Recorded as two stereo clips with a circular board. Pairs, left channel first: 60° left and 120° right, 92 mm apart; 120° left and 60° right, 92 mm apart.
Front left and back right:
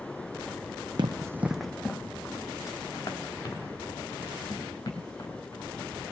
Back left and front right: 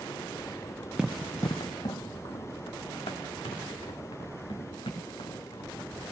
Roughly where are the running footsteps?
Behind right.